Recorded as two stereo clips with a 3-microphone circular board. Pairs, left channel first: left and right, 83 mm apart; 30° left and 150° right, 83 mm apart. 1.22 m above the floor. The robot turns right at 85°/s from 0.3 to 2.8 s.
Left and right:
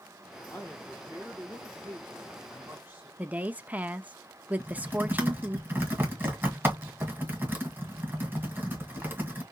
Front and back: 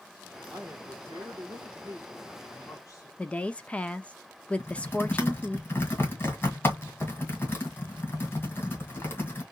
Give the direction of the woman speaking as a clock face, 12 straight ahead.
1 o'clock.